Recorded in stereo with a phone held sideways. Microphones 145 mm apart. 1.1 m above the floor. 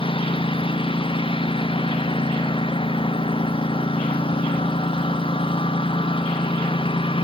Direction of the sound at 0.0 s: 35° left (ahead or behind).